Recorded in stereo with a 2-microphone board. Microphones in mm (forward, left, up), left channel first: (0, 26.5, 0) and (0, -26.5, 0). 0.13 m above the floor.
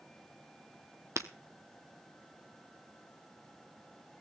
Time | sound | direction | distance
1.2 | breaking glass | 75° right (ahead or behind) | 1.0 m